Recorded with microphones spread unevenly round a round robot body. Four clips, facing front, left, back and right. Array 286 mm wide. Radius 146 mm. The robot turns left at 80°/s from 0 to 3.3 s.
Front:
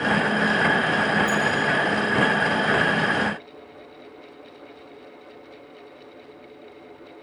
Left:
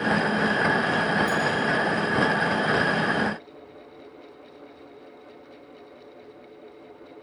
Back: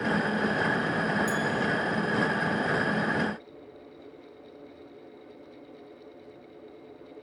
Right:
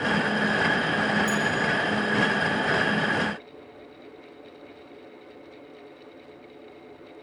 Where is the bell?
175° right, 3 m; by 1.5 s 165° left, 3 m.